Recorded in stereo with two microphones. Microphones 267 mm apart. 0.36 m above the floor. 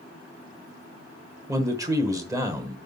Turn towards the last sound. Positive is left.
turn(degrees=-15)  # may be behind; listen again after turning